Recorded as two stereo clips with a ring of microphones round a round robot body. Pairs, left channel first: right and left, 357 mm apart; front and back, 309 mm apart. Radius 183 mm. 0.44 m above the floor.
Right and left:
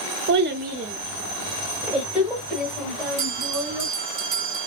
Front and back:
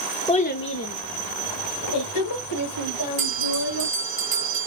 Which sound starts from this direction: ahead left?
A child speaking, at 0.3 s.